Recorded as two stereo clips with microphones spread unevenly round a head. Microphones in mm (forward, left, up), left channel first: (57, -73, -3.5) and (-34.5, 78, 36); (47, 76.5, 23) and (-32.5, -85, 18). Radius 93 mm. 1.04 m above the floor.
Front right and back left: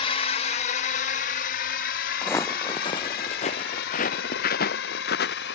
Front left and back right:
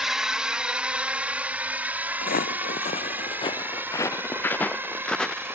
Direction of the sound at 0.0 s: 30° right.